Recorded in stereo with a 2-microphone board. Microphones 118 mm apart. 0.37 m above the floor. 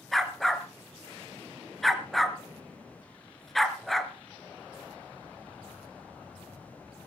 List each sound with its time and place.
0.1 s a dog barking: centre (ahead or behind), 1.5 m